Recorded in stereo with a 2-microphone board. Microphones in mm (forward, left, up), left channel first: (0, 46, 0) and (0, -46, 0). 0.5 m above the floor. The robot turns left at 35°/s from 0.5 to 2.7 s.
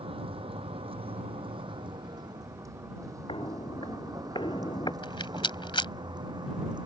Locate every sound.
0.0 s a vehicle: 85° right; by 6.9 s 55° right (ahead or behind)
3.3 s footsteps: 75° left (ahead or behind); by 4.9 s 55° left (ahead or behind)
5.0 s a rattle: 65° left (ahead or behind)